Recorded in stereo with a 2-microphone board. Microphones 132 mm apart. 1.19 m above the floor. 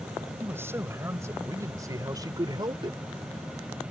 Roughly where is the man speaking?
Centre.